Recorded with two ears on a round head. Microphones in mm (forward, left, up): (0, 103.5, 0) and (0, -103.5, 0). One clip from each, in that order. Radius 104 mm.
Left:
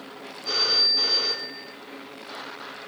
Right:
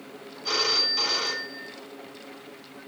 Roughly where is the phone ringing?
Right.